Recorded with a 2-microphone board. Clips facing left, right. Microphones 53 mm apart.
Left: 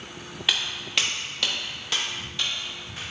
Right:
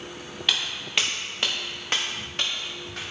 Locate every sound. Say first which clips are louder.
0.5 s footsteps: even; 10° left (ahead or behind), 0.8 m; by 3.1 s 60° right (ahead or behind), 1.5 m